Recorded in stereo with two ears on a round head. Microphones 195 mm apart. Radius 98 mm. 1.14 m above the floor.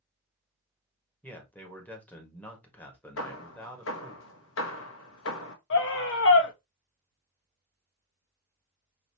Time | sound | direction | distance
1.2 | a man speaking | 5° left (ahead or behind) | 1.6 m
3.2 | hammering | 70° left (ahead or behind) | 1.0 m
5.7 | a scream | 60° left (ahead or behind) | 1.3 m